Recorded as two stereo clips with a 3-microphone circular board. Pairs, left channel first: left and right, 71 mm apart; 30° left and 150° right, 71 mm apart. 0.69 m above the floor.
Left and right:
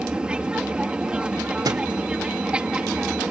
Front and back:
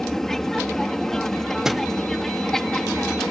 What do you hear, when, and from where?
0.0 s an aircraft: 45° right
1.6 s a thud: 65° right